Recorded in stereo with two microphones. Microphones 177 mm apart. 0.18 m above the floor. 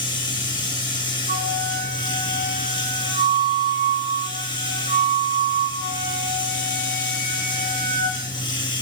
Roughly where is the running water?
Left.